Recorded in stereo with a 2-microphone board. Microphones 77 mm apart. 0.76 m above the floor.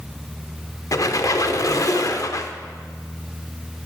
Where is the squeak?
50° left (ahead or behind), 0.7 m.